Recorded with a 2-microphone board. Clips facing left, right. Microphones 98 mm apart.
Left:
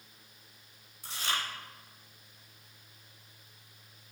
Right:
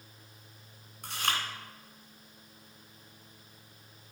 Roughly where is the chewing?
Right.